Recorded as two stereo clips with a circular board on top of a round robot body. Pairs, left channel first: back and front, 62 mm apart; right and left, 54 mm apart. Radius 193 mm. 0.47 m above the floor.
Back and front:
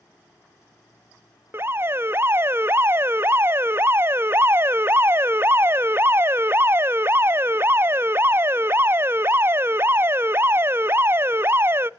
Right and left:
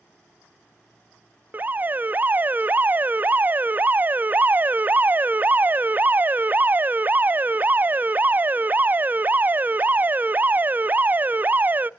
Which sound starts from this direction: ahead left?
An alarm, at 1.5 s.